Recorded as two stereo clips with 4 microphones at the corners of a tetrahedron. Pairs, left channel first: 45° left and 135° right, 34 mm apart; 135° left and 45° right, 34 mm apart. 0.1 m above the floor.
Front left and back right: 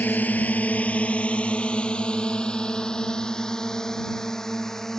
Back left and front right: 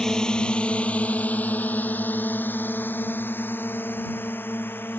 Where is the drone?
60° left; by 5.0 s 125° left.